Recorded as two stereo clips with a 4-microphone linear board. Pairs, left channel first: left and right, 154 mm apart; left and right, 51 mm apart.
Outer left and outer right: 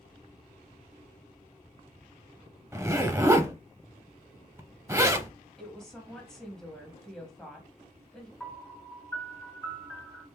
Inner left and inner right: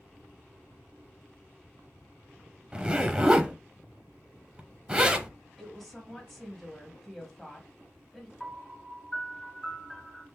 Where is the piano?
5° left (ahead or behind), 1.7 m.